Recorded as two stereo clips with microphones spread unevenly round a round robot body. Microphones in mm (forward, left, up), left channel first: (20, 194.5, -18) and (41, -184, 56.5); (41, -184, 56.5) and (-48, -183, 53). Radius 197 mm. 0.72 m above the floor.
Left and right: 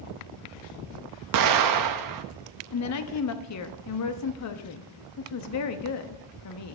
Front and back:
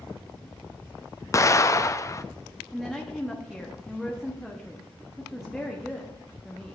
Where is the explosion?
50° right, 0.7 m.